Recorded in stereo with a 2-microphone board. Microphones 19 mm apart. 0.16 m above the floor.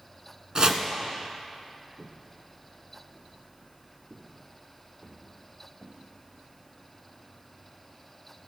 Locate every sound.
0.6 s chopping: 45° right (ahead or behind), 1.0 m
2.0 s footsteps: 15° right (ahead or behind), 1.2 m; by 6.0 s 80° right, 6.5 m